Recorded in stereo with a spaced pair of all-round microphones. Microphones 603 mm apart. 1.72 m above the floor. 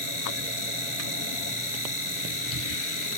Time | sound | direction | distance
0.0 | a machine running | 55° left (ahead or behind) | ?